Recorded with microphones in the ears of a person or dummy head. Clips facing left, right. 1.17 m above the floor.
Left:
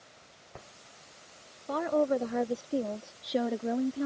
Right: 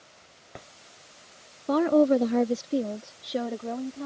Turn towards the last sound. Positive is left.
turn(degrees=20)  # may be behind; listen again after turning